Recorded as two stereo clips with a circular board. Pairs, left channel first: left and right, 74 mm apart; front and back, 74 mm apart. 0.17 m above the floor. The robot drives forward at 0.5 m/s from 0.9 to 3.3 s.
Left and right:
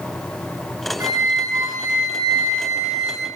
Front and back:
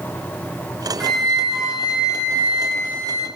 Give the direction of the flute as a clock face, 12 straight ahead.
3 o'clock.